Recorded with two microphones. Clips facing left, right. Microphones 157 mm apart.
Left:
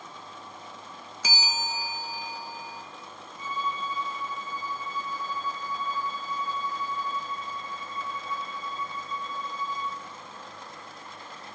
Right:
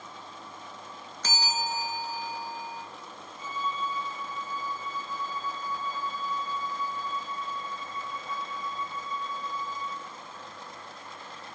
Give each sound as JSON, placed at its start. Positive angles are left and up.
{"t": 1.2, "sound": "a bell", "side_deg": 10, "distance_m": 0.9}
{"t": 3.4, "sound": "a violin", "side_deg": -70, "distance_m": 3.5}